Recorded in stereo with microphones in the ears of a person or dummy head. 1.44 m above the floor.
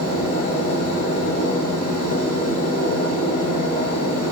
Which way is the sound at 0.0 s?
40° left (ahead or behind).